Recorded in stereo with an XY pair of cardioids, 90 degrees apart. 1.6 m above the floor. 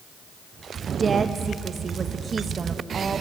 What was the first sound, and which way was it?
A woman speaking, 40° right.